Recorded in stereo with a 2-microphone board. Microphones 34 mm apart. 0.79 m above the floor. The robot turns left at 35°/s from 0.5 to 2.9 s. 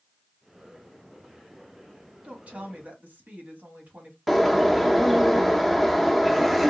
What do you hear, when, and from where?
2.2 s a woman speaking: 30° right (ahead or behind), 1.6 m; by 4.2 s 50° right (ahead or behind), 1.6 m
4.3 s a bird: centre (ahead or behind), 0.6 m